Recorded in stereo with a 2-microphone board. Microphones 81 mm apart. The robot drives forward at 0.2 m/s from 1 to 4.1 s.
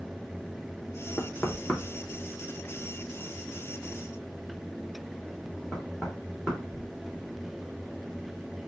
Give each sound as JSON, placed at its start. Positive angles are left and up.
{"t": 1.2, "sound": "knocking", "side_deg": 20, "distance_m": 0.6}